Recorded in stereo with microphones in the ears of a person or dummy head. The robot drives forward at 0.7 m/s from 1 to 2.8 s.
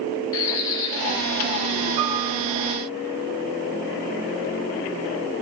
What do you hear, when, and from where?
0.3 s a bird: 25° left (ahead or behind), 1.0 m
2.0 s a piano: 30° right (ahead or behind), 1.6 m